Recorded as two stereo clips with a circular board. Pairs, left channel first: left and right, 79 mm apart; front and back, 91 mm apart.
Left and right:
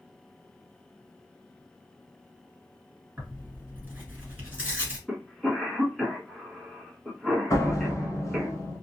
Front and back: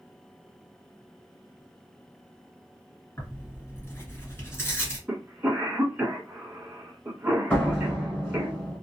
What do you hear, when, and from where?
3.2 s tearing paper: 35° right, 1.5 m
5.1 s a cough: 165° left, 1.1 m
7.5 s a door slam: 60° left, 1.2 m